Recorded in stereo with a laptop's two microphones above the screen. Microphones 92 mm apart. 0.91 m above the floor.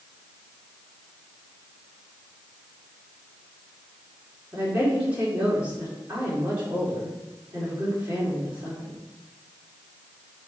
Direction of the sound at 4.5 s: 20° right (ahead or behind).